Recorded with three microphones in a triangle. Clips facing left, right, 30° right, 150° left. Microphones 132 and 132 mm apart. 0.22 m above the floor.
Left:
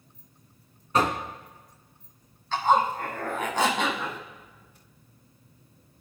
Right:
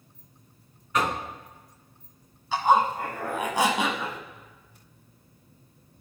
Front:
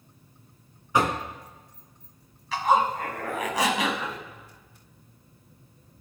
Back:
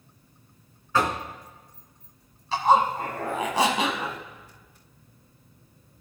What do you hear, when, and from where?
0.9 s knocking: 40° left, 1.5 m
2.5 s a zipper: 165° right, 1.5 m